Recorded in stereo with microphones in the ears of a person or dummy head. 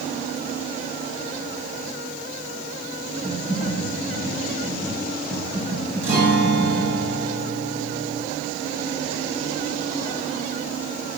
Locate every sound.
3.2 s typing on a keyboard: centre (ahead or behind), 4.5 m
6.0 s a guitar: 15° right (ahead or behind), 4 m